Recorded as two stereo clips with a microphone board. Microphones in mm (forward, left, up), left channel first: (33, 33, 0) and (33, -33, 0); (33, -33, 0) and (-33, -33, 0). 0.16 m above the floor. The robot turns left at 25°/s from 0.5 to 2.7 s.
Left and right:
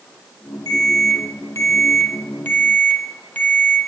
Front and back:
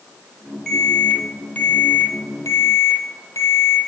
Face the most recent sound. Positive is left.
turn(degrees=30)